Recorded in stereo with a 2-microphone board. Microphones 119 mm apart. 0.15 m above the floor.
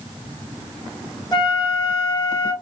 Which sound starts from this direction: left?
A flute, at 1.3 s.